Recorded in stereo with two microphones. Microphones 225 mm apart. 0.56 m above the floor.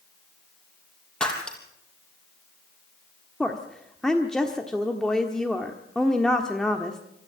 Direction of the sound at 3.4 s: Centre (ahead or behind).